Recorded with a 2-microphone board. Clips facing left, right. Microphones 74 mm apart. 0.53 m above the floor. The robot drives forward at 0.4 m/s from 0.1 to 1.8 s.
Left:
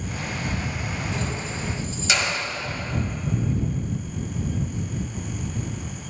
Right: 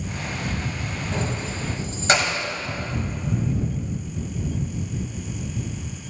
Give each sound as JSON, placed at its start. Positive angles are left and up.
{"t": 1.1, "sound": "keys jangling", "side_deg": -40, "distance_m": 2.0}